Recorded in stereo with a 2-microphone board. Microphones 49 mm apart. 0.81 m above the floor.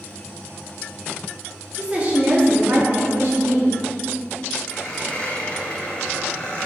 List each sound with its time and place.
1.7 s a woman speaking: 25° right (ahead or behind), 2.0 m; by 3.7 s 65° right (ahead or behind), 2 m
4.7 s a squeak: 25° left (ahead or behind), 1.9 m